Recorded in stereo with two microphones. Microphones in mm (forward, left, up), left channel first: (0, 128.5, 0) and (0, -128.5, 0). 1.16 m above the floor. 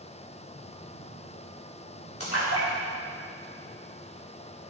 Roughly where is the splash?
Left.